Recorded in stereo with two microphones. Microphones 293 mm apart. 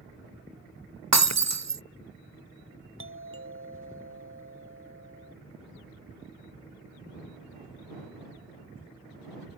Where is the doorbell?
50° right (ahead or behind).